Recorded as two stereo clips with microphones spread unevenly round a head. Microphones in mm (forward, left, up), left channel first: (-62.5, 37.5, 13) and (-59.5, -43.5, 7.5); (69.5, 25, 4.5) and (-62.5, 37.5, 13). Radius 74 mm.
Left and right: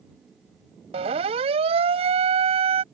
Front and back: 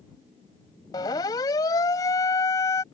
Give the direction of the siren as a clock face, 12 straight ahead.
2 o'clock.